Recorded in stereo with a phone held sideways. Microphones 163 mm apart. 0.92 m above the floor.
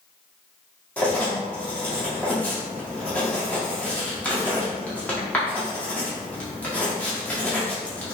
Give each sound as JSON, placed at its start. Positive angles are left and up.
{"t": 1.0, "sound": "writing", "side_deg": 10, "distance_m": 1.5}